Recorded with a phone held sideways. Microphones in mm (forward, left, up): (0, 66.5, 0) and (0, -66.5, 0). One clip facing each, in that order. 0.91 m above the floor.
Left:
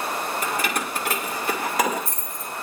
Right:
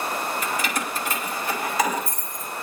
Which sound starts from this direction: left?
Keys jangling, at 0.4 s.